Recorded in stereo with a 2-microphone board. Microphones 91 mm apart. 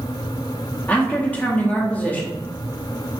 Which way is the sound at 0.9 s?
15° left (ahead or behind).